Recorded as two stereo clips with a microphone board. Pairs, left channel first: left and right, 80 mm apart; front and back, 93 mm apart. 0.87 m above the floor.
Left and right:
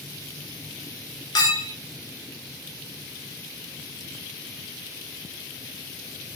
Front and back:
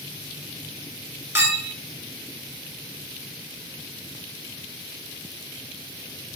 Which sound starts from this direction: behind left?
A clink, at 1.4 s.